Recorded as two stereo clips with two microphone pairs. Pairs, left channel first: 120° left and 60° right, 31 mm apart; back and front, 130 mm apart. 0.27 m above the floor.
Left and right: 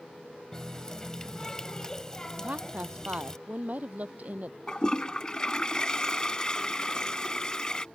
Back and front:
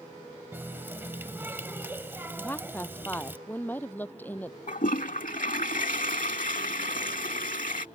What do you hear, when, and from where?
0.5 s a running tap: 60° left
2.4 s a woman speaking: 105° right
4.7 s a toilet flushing: straight behind